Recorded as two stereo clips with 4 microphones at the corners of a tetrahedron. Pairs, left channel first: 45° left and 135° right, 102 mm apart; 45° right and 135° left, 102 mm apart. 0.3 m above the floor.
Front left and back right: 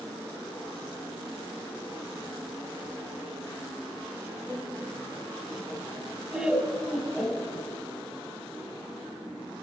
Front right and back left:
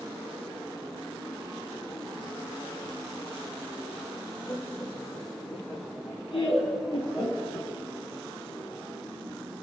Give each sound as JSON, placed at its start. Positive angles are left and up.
{"t": 4.5, "sound": "laughter", "azimuth_deg": -85, "distance_m": 2.5}